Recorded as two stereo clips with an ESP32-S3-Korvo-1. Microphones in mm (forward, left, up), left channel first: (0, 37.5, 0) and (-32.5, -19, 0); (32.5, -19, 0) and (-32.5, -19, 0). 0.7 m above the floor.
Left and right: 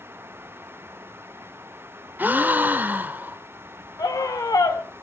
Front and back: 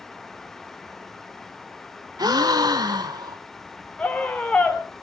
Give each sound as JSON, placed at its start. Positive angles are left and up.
{"t": 2.2, "sound": "a gasp", "azimuth_deg": 175, "distance_m": 1.4}
{"t": 4.0, "sound": "a scream", "azimuth_deg": 70, "distance_m": 3.0}